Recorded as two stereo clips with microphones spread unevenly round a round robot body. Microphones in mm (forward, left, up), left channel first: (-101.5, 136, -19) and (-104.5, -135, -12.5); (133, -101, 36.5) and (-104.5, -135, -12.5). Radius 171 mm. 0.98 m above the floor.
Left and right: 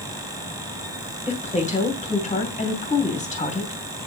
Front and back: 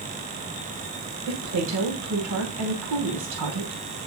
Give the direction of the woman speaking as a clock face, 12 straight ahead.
7 o'clock.